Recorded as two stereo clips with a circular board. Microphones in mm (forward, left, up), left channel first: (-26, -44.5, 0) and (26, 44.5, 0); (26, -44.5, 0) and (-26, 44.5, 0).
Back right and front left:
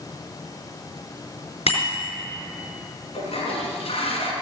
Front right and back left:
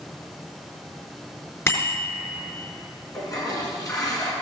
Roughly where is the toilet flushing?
Behind right.